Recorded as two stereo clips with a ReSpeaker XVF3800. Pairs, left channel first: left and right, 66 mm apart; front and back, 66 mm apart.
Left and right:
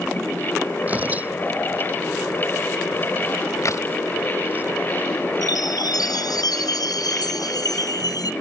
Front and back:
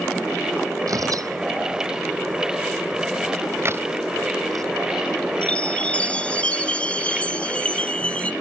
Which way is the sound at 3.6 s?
130° left.